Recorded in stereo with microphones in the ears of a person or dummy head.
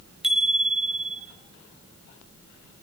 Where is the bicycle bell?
5° right (ahead or behind), 4 m.